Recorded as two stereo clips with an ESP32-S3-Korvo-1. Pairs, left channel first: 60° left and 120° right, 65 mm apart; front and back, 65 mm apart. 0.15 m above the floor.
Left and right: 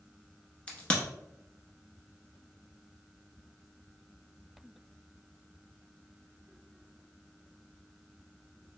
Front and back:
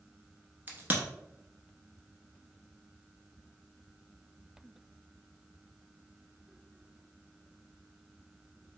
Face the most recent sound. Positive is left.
turn(degrees=130)